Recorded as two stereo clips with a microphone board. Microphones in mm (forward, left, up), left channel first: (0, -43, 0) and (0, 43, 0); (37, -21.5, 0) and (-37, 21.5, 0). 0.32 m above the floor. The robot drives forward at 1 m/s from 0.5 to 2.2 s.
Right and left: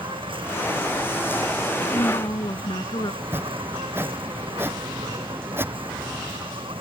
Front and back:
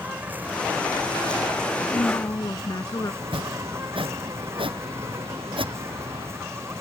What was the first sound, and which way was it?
An insect, 80° left.